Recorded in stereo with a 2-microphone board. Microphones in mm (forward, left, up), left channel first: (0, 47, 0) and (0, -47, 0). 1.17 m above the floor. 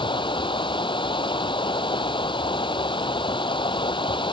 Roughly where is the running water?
Left.